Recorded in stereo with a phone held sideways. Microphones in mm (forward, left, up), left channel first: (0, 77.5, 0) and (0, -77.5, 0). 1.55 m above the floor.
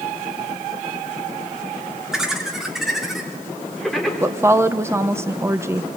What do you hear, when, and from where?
2.1 s laughter: 5° right (ahead or behind), 5 m; by 4.1 s centre (ahead or behind), 6 m
4.2 s a woman speaking: 15° right (ahead or behind), 1.1 m